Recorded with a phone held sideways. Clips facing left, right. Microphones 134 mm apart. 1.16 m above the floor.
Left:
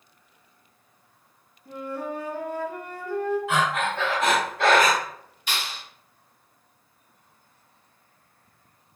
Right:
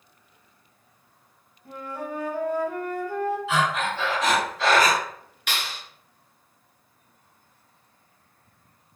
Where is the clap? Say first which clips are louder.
Even; 65° right (ahead or behind), 1.7 m.